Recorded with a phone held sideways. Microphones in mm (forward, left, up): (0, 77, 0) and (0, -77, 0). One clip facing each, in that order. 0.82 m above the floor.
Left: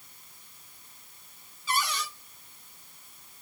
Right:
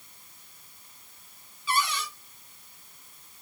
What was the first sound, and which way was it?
A cupboard door, 45° left (ahead or behind).